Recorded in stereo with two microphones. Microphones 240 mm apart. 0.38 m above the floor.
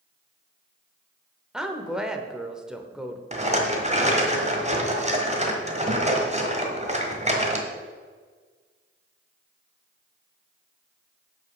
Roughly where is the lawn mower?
I don't hear a lawn mower.